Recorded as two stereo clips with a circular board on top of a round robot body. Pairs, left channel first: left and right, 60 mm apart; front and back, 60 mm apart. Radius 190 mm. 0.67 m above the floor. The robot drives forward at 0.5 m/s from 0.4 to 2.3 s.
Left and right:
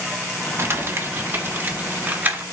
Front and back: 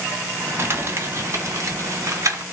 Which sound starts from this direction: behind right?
Crumpling, at 0.6 s.